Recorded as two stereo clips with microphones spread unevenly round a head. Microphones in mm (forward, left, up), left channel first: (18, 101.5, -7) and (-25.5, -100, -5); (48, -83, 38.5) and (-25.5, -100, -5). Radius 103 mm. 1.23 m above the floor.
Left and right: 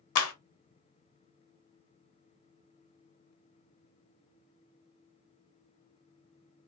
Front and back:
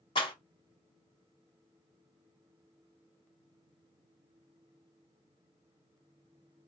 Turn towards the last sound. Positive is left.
turn(degrees=60)